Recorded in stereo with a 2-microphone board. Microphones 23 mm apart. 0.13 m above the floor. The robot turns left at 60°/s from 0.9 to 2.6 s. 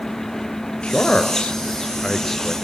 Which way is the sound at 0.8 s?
55° left (ahead or behind).